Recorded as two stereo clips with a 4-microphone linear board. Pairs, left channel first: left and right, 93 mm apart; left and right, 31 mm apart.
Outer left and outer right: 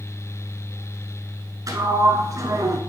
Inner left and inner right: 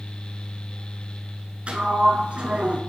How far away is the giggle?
No giggle in this recording.